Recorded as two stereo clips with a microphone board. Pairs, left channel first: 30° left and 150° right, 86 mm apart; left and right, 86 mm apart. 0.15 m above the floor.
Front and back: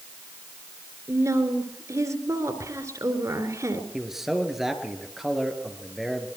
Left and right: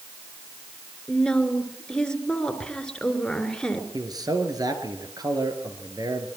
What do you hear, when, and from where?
1.1 s a woman speaking: 170° left, 2.5 m
3.9 s a man speaking: 65° right, 3 m